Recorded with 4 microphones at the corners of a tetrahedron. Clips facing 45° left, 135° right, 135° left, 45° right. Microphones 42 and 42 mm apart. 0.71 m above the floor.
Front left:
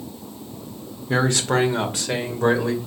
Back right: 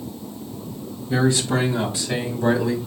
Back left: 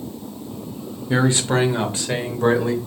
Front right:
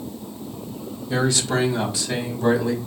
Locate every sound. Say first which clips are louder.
1.1 s a man speaking: even, back left 3 dB; 70° left, 1.9 m; by 2.8 s 85° left, 2.5 m